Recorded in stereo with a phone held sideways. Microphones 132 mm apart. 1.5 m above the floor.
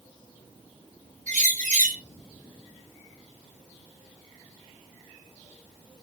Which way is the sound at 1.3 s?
75° right (ahead or behind).